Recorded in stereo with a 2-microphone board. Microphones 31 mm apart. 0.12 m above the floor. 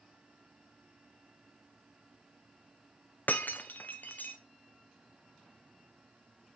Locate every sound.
3.3 s breaking glass: 75° left (ahead or behind), 0.8 m